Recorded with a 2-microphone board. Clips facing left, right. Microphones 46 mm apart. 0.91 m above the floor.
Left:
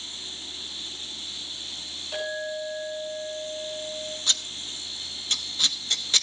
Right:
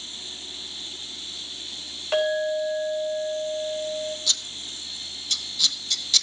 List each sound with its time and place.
2.1 s a clink: 55° right (ahead or behind), 3.5 m
4.3 s scissors: 40° left (ahead or behind), 1.2 m